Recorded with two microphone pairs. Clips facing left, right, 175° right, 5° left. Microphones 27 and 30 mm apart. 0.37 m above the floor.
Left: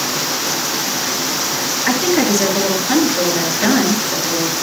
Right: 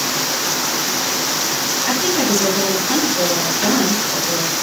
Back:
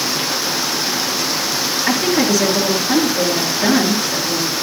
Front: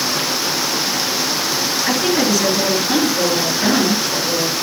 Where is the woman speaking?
95° left, 7.5 m.